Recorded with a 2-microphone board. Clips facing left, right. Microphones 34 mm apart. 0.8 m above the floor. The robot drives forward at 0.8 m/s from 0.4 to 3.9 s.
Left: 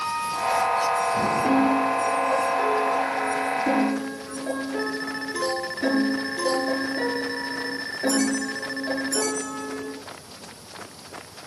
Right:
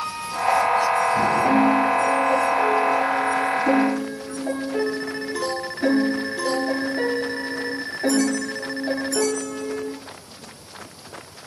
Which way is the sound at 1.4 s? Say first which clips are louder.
Right 2 dB; 25° left (ahead or behind).